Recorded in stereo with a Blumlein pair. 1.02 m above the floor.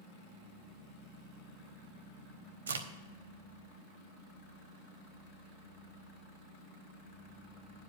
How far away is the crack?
About 0.9 m.